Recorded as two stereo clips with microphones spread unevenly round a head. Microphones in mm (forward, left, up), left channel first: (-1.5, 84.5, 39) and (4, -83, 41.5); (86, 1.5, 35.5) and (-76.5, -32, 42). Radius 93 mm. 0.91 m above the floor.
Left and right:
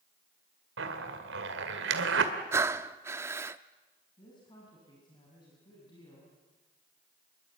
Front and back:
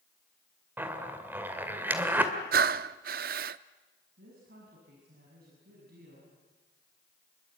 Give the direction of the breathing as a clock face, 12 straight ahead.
5 o'clock.